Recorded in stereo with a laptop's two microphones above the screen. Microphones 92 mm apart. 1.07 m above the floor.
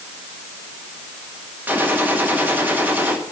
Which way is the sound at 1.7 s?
20° right (ahead or behind).